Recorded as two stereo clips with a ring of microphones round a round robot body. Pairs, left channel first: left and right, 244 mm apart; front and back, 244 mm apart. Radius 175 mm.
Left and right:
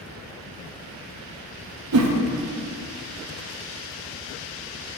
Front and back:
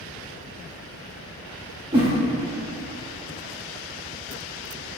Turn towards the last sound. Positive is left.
turn(degrees=-105)